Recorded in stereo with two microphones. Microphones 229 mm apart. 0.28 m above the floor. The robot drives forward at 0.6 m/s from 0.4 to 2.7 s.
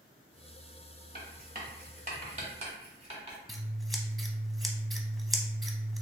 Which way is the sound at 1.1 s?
40° right (ahead or behind).